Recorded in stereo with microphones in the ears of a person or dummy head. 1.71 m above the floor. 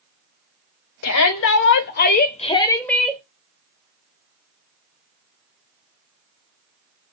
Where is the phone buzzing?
No phone buzzing in this recording.